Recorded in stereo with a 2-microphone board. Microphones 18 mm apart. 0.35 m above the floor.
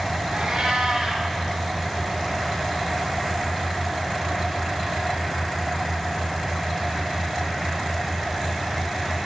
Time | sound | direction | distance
0.3 | a cat meowing | 80° right | 2.5 m